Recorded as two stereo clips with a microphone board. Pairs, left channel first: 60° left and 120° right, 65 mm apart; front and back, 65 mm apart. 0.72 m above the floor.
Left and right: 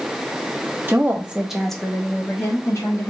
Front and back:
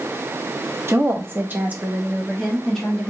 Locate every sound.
0.9 s a woman speaking: 170° right, 1.1 m; by 3.1 s 75° left, 1.4 m